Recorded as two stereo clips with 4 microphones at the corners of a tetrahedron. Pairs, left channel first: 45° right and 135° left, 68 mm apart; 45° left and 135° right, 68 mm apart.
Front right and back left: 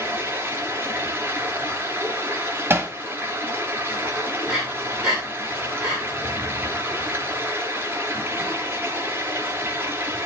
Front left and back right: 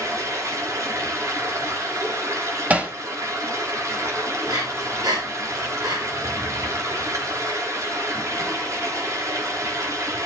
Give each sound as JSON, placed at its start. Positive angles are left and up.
{"t": 0.0, "sound": "running water", "azimuth_deg": -170, "distance_m": 3.5}
{"t": 2.7, "sound": "hammering", "azimuth_deg": 170, "distance_m": 1.7}
{"t": 4.5, "sound": "breathing", "azimuth_deg": -140, "distance_m": 8.5}